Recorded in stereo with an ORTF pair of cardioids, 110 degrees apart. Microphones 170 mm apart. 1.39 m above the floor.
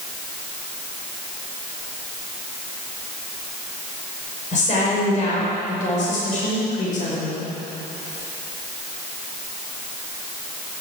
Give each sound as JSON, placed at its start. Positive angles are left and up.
{"t": 4.5, "sound": "a woman speaking", "azimuth_deg": 45, "distance_m": 6.0}